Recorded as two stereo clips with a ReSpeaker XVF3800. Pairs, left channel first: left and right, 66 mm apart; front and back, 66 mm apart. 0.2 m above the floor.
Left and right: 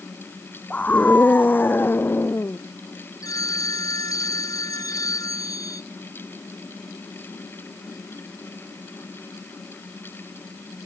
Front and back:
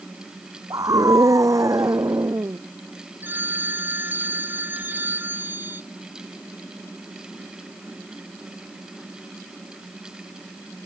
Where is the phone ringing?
120° left.